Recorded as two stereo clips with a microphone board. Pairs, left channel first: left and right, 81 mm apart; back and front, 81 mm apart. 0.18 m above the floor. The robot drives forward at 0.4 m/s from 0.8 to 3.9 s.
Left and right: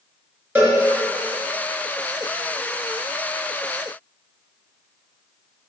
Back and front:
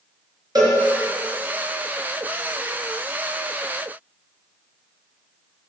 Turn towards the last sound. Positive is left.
turn(degrees=-45)